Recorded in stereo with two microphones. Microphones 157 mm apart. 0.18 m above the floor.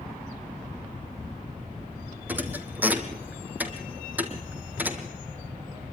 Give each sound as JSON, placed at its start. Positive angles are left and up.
{"t": 2.3, "sound": "a thud", "side_deg": -10, "distance_m": 2.0}